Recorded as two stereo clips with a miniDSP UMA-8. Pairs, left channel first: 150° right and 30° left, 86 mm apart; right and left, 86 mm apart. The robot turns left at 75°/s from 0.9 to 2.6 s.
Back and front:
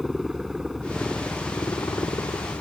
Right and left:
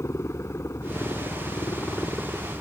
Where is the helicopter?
55° right; by 2.6 s 175° left.